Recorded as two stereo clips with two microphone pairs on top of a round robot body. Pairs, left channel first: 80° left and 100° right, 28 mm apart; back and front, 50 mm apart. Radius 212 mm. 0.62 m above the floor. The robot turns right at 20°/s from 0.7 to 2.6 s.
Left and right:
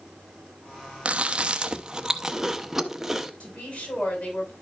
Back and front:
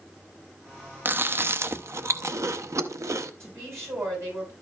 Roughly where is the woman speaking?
Ahead left.